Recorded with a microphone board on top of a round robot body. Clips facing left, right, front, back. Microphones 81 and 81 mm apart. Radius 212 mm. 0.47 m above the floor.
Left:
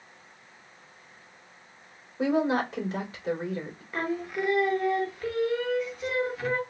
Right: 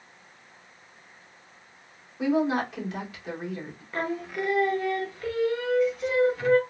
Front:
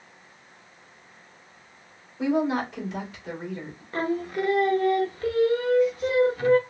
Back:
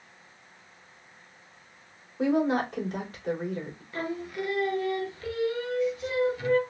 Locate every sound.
2.2 s a woman speaking: 145° left, 2.5 m
3.9 s singing: 5° left, 1.0 m